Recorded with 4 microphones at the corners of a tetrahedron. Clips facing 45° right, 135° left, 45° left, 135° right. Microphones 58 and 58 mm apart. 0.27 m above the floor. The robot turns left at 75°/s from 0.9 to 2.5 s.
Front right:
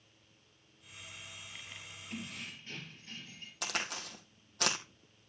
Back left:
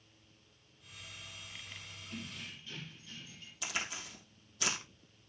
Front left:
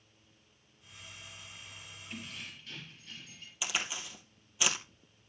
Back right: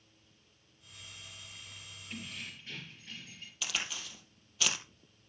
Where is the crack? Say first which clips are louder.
Front right 2 dB, front left 2 dB; 30° right, 2.5 m.